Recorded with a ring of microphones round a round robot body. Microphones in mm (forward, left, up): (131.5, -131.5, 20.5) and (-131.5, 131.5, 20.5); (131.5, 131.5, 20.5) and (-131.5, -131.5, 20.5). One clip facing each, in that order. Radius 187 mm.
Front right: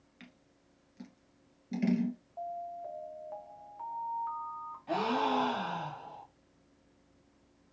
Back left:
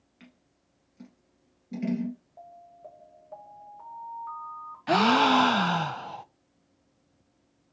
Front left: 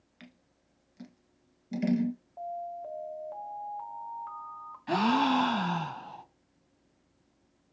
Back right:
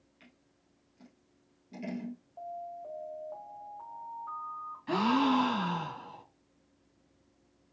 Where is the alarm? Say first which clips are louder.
Front right 8 dB, front left 4 dB; 25° left, 1.5 m.